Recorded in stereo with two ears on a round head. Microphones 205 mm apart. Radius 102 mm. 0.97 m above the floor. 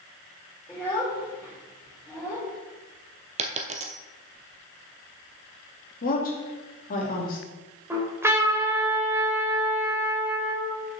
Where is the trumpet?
10° right (ahead or behind), 2.5 m.